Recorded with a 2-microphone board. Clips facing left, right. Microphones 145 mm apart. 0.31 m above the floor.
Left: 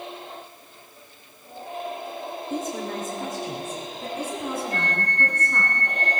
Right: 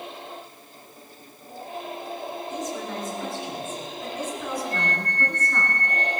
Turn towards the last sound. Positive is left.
turn(degrees=-35)  # may be behind; listen again after turning